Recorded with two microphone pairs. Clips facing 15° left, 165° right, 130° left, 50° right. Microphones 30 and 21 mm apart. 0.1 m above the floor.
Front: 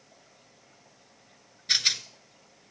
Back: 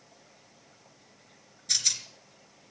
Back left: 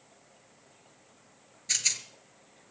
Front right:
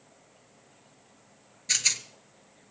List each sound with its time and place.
1.7 s a rattle: 10° left, 0.7 m